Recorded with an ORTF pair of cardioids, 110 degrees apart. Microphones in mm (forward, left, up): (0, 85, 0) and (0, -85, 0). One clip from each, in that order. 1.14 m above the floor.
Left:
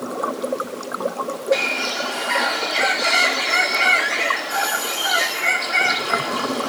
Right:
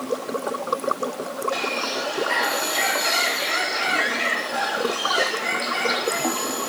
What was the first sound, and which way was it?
A bird, 30° left.